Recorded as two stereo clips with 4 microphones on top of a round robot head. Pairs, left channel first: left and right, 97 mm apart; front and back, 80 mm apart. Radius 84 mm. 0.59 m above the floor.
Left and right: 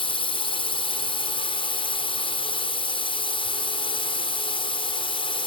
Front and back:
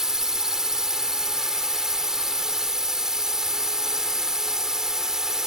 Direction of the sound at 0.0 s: 95° left.